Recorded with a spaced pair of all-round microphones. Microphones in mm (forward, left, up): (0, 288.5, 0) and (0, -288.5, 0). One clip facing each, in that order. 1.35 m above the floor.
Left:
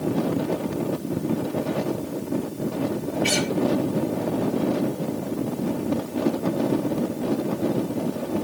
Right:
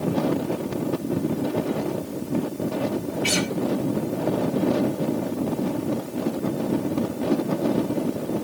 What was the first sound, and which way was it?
A guitar, 30° right (ahead or behind).